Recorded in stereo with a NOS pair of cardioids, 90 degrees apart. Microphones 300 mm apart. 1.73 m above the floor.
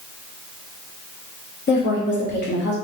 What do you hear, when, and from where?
1.7 s a woman speaking: 35° left, 1.2 m